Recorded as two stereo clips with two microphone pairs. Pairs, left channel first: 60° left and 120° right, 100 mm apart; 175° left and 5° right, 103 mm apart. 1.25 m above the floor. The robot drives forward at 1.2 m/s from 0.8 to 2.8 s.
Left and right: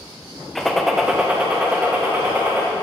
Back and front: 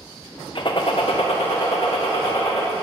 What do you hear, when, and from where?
0.6 s a gunshot: 150° left, 1.0 m; by 2.6 s 170° left, 3 m